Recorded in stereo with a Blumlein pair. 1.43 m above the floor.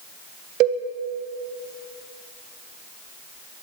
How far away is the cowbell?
About 1.6 m.